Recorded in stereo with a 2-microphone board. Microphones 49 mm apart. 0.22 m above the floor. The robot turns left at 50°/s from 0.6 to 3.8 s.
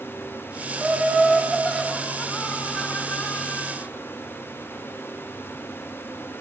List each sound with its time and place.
0.8 s laughter: 135° right, 1.7 m; by 3.9 s 70° left, 1.7 m